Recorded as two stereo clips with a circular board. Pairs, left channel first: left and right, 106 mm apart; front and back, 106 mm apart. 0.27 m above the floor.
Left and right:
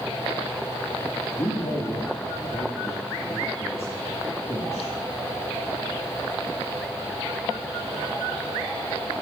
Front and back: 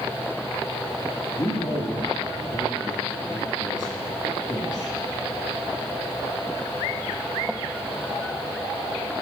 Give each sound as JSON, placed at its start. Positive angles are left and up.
{"t": 1.4, "sound": "a man speaking", "azimuth_deg": 30, "distance_m": 2.0}